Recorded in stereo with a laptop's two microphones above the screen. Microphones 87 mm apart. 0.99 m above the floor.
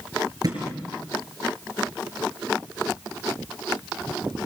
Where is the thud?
45° right (ahead or behind), 6 m.